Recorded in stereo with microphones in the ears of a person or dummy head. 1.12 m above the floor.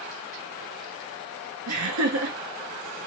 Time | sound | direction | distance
1.7 | laughter | 80° right | 1.6 m